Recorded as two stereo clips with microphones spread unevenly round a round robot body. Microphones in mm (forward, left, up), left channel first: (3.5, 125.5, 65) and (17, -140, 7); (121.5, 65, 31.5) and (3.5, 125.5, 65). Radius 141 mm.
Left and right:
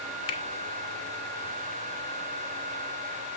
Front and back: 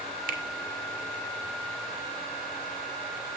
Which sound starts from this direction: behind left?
A finger snap, at 0.3 s.